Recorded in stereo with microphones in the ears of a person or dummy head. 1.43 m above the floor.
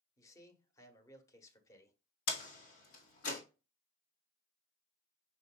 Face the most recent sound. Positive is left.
turn(degrees=75)  # may be behind; listen again after turning